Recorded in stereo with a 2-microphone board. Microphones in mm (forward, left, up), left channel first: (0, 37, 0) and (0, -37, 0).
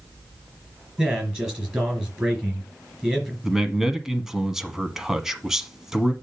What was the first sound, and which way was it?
A man speaking, 15° right (ahead or behind).